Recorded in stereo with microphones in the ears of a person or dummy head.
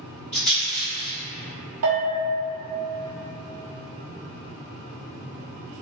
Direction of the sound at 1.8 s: 75° right (ahead or behind).